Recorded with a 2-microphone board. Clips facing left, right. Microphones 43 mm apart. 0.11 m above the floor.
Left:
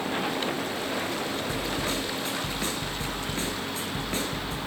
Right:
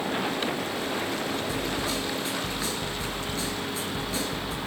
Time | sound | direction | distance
1.5 | a snare drum | 40° left (ahead or behind) | 2 m